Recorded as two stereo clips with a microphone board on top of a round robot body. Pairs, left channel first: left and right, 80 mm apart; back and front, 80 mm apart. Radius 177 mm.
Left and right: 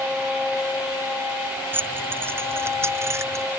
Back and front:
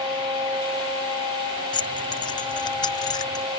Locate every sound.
1.7 s keys jangling: 155° right; by 3.5 s 145° right